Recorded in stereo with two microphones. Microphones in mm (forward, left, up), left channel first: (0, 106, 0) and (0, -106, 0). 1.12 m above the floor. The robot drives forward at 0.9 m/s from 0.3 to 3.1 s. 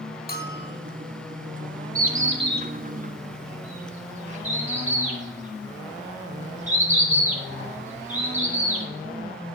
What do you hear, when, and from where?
0.3 s a bell: 40° left (ahead or behind), 1.0 m; by 0.9 s 45° left (ahead or behind), 0.9 m
1.9 s a bird: 75° right (ahead or behind), 0.8 m; by 8.8 s 30° right (ahead or behind), 1.4 m